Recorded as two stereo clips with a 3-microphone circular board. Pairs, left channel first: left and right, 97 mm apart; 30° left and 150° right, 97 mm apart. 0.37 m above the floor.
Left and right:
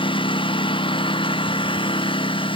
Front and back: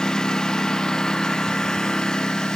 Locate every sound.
0.0 s a lawn mower: 115° left